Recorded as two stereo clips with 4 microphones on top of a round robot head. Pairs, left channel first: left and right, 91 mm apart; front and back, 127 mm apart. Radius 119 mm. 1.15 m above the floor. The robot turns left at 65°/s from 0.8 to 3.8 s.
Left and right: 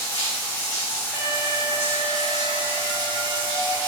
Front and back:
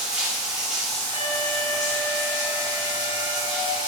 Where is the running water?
100° left, 1.7 m; by 3.9 s 95° right, 1.7 m.